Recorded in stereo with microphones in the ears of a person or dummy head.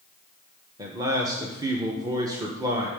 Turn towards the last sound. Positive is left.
turn(degrees=-15)  # may be behind; listen again after turning